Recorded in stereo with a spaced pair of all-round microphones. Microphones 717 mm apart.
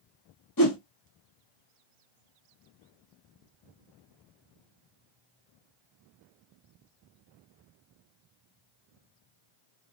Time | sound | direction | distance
0.6 | a whoosh | 30° left (ahead or behind) | 0.9 m